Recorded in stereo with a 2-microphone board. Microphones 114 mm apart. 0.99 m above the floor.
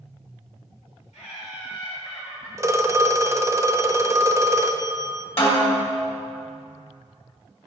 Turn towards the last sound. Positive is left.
turn(degrees=55)  # may be behind; listen again after turning